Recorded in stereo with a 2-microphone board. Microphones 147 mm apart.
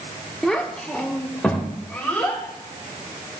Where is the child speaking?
5° left (ahead or behind), 1.0 m; by 2.4 s 10° left (ahead or behind), 2.5 m.